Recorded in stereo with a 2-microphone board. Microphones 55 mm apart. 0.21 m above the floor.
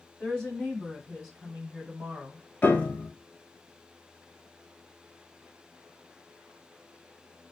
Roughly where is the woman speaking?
Centre.